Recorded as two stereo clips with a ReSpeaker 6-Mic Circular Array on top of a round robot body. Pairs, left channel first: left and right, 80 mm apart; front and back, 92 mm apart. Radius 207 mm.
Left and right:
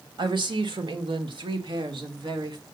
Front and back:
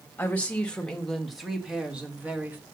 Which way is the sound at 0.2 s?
75° right.